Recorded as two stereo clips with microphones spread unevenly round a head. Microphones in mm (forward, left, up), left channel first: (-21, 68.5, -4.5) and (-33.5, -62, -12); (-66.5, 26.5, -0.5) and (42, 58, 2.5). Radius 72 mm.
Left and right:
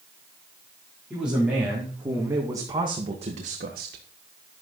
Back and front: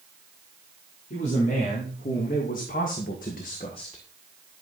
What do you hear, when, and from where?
1.1 s a man speaking: straight behind, 4.5 m; by 4.1 s 90° right, 1.6 m